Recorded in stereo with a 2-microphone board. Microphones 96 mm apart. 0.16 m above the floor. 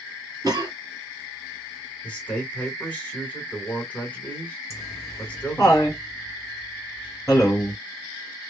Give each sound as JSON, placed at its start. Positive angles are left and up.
{"t": 0.4, "sound": "a cough", "side_deg": -40, "distance_m": 1.7}
{"t": 2.0, "sound": "a man speaking", "side_deg": 15, "distance_m": 1.5}
{"t": 4.7, "sound": "laughter", "side_deg": 30, "distance_m": 1.8}